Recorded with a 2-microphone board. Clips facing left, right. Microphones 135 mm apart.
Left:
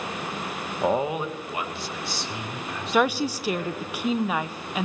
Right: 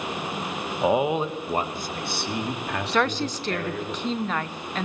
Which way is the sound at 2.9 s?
10° left (ahead or behind).